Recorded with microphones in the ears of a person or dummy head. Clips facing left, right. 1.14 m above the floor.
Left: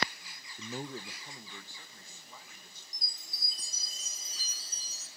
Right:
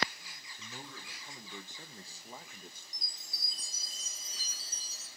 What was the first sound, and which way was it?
A man speaking, 50° left (ahead or behind).